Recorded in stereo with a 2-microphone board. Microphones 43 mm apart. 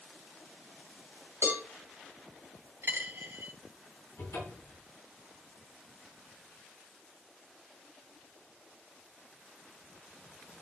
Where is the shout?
I don't hear a shout.